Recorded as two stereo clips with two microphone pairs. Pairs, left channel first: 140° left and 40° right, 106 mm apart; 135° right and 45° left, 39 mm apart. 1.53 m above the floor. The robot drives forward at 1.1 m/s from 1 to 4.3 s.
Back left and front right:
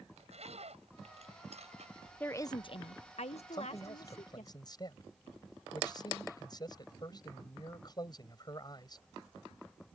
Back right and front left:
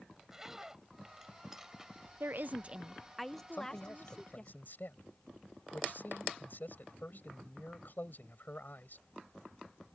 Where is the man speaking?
170° right.